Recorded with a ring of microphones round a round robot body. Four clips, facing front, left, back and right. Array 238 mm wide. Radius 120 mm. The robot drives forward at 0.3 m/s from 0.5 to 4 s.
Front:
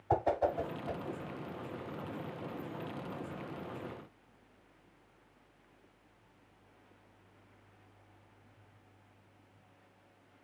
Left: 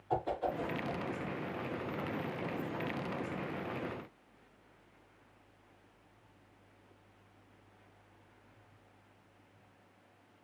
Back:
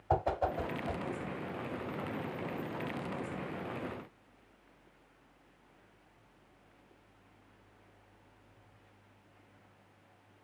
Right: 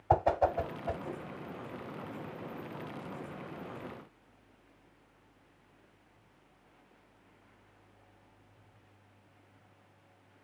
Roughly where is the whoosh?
Right.